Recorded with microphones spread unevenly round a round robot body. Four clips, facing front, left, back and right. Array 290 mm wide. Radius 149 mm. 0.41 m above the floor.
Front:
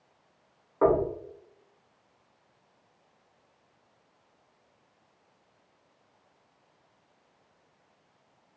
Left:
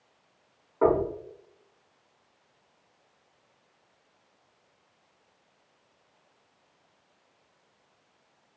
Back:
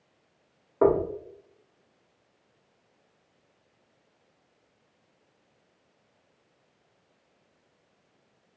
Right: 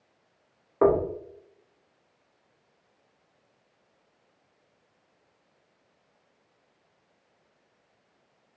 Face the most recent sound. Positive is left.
turn(degrees=-140)